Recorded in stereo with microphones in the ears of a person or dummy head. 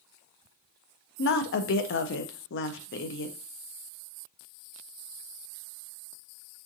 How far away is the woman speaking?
About 0.5 m.